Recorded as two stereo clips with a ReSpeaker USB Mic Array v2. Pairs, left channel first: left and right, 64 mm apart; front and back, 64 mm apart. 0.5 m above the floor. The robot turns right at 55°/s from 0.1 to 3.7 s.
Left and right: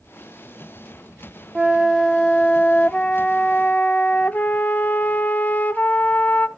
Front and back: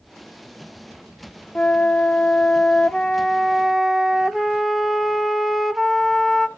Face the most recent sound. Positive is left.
turn(degrees=90)